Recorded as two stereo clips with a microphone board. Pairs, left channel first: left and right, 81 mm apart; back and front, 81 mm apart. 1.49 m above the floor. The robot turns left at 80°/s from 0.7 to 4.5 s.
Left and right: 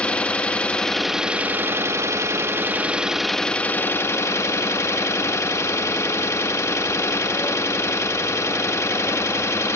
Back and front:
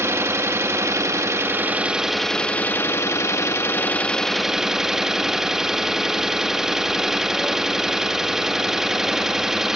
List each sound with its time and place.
0.0 s an engine running: 25° left, 1.0 m; by 9.8 s 80° left, 1.0 m